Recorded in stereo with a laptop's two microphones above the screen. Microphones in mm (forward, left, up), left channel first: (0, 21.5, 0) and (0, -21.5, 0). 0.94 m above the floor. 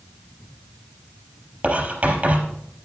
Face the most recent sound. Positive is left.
turn(degrees=-35)  # may be behind; listen again after turning